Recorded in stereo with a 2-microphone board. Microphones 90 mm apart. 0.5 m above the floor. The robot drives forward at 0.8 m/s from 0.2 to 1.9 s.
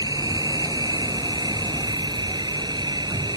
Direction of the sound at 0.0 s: 50° right (ahead or behind).